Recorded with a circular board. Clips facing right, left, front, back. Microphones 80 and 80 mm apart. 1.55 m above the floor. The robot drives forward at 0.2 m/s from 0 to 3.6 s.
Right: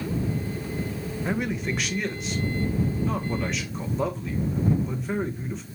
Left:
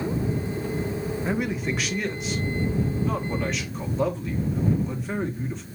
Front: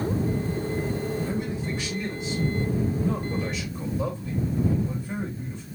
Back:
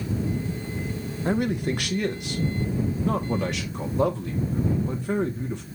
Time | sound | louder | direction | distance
1.2 | a man speaking | even, back 5 dB | 175° left | 0.5 m